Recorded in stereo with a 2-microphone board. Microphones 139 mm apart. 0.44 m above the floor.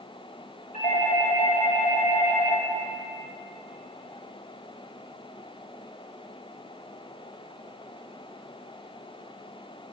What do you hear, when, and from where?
0.7 s a doorbell: 60° left (ahead or behind), 2 m